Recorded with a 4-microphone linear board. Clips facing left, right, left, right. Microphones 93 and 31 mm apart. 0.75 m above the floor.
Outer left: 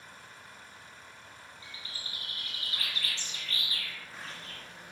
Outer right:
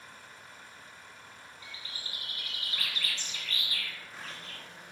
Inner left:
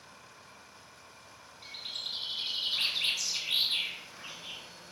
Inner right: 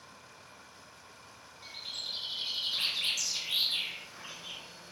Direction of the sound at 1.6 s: 35° left (ahead or behind).